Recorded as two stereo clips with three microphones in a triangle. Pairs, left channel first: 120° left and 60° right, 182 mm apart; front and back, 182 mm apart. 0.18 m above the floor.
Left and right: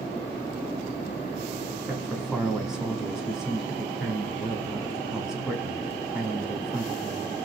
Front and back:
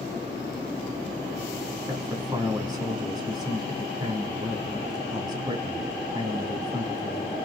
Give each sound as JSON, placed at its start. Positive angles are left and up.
{"t": 1.9, "sound": "a man speaking", "azimuth_deg": -140, "distance_m": 1.2}